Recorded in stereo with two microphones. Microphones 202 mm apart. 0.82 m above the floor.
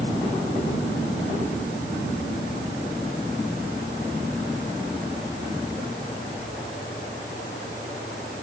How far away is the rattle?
No rattle in this recording.